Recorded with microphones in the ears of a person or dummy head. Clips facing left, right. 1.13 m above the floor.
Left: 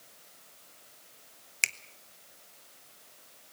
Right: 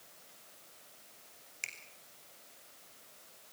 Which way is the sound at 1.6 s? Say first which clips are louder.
Left 12 dB; 70° left (ahead or behind).